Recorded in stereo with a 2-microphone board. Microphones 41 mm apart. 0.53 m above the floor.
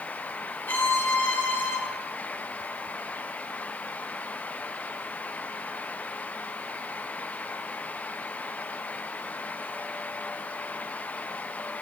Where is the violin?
55° left (ahead or behind), 1.2 m.